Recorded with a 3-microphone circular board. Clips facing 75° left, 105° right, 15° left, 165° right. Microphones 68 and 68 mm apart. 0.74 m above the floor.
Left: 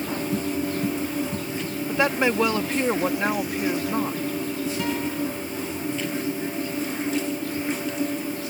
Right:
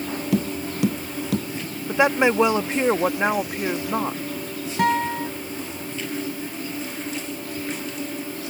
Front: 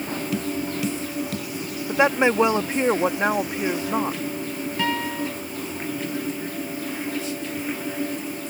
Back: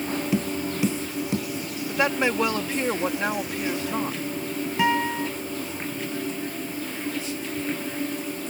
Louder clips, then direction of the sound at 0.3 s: Right 2 dB, front 1 dB; 95° right.